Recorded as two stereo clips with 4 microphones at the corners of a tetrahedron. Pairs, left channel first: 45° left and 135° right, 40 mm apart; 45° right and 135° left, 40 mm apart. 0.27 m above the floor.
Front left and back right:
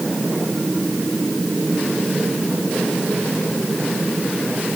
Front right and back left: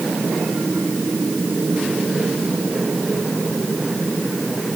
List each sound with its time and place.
Only background noise.